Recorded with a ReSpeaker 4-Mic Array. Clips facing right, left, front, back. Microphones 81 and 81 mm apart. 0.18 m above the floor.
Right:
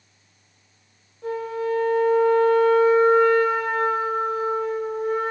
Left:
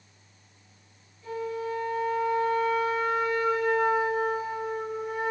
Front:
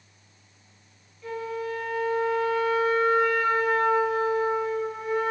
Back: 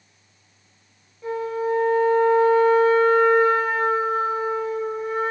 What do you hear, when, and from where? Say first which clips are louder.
1.2 s a flute: right 6 dB, back 7 dB; 120° right, 8.5 m